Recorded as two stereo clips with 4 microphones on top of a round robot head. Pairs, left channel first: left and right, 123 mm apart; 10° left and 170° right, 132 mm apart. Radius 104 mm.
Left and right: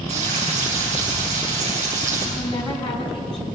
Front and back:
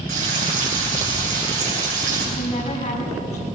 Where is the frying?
135° right, 8.5 m.